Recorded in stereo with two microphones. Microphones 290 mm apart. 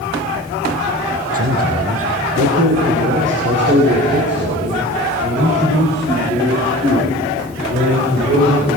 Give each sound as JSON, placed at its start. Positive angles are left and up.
{"t": 1.3, "sound": "a man speaking", "side_deg": -55, "distance_m": 3.5}